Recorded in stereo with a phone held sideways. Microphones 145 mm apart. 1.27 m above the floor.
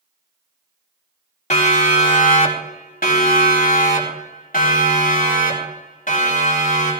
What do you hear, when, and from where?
1.5 s a siren: 55° left (ahead or behind), 3 m; by 6.9 s 60° left (ahead or behind), 6.5 m